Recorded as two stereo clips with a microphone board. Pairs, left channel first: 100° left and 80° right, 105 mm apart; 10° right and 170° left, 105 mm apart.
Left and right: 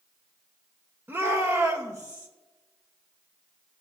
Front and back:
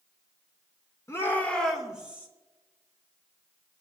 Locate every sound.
1.1 s a shout: 40° right, 1.2 m; by 2.3 s 125° right, 1.5 m